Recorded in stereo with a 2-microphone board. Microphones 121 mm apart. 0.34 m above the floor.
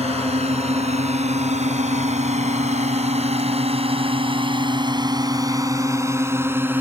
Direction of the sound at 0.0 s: 55° right (ahead or behind).